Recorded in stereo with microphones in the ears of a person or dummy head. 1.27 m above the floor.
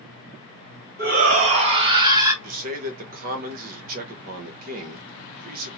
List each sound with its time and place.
1.0 s a shout: 55° right (ahead or behind), 1.4 m; by 2.3 s 20° right (ahead or behind), 1.5 m
2.4 s a man speaking: 50° right (ahead or behind), 1.0 m